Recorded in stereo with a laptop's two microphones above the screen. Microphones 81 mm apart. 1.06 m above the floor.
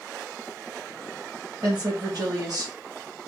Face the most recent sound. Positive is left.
turn(degrees=-55)  # may be behind; listen again after turning